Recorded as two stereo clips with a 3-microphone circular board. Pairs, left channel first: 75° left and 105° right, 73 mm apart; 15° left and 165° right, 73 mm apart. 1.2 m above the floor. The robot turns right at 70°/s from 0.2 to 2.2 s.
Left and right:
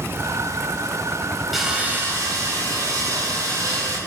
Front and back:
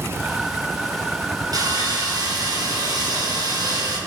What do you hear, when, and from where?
1.5 s sawing: 165° left, 3 m; by 4.0 s 145° right, 3 m